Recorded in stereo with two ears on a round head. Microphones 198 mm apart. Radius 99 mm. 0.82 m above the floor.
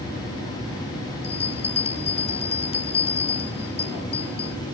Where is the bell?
30° left (ahead or behind).